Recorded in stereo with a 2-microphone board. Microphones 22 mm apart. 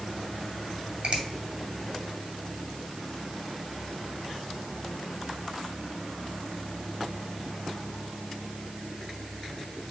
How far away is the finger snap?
About 2 m.